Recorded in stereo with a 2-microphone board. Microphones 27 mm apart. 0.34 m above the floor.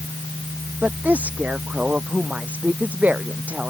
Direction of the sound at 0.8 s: 70° right (ahead or behind).